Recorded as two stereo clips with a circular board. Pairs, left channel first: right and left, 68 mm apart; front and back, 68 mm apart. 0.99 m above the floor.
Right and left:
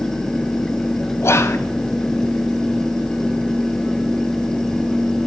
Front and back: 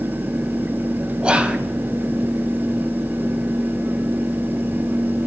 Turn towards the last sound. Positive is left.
turn(degrees=-115)